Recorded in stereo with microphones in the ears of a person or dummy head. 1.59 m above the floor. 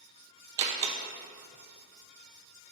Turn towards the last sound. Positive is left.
turn(degrees=-25)  # may be behind; listen again after turning